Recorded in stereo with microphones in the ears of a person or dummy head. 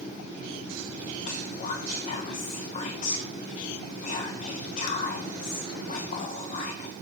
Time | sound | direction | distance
1.2 | whispering | 45° left (ahead or behind) | 1.1 m